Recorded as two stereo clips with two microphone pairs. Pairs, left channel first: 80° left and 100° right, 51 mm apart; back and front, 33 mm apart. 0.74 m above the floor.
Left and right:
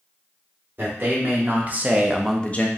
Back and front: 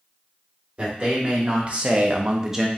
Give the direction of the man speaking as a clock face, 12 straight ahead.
2 o'clock.